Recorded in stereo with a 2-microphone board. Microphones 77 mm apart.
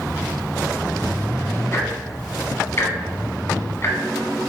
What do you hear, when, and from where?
1.7 s ticking: 35° left (ahead or behind), 1.4 m